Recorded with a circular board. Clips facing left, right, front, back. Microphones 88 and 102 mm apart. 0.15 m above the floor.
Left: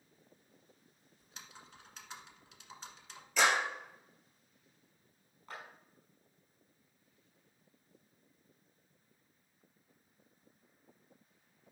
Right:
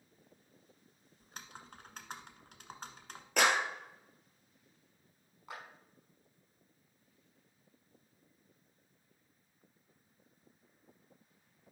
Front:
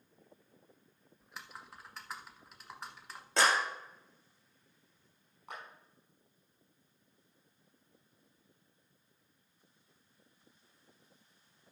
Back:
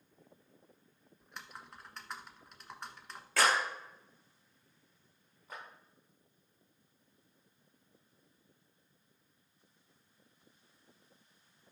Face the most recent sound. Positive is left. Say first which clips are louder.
# right 1 dB, front 2 dB
turn(degrees=-15)